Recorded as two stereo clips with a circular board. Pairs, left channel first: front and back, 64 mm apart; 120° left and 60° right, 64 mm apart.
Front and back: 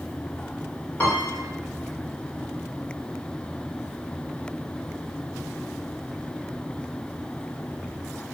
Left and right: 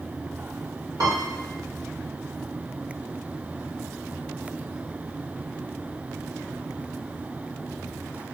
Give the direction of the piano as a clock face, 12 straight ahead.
2 o'clock.